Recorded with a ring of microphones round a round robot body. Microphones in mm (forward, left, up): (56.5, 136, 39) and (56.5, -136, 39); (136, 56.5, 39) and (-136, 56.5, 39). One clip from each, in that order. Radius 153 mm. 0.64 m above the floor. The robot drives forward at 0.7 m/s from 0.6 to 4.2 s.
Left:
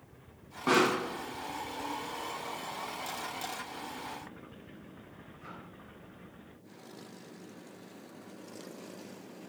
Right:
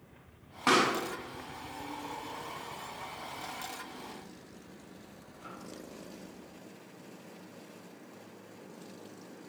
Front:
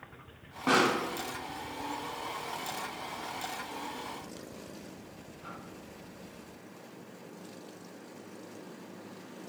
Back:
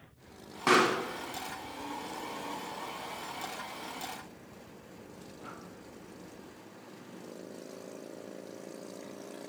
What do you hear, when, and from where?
0.7 s a pop: 135° right, 1.7 m; by 5.5 s 160° right, 4 m